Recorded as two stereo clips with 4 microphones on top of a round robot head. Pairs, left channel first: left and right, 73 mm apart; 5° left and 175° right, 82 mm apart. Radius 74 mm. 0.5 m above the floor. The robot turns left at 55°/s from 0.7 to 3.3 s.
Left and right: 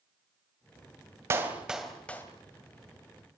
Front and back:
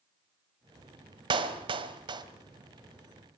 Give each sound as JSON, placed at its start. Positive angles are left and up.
{"t": 1.3, "sound": "a clap", "azimuth_deg": -150, "distance_m": 2.5}